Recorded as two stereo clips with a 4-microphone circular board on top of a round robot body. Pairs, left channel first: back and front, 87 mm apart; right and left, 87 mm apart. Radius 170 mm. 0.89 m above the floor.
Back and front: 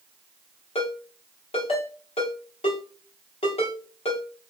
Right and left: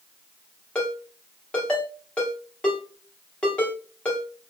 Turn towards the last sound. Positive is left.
turn(degrees=-170)